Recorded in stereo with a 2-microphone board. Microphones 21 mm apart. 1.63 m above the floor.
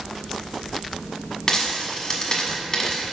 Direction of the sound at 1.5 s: 25° left (ahead or behind).